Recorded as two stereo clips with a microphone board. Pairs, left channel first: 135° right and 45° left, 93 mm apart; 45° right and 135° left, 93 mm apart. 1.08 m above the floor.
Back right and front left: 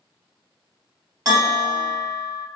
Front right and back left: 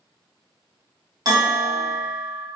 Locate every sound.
1.2 s a bell: 95° left, 1.5 m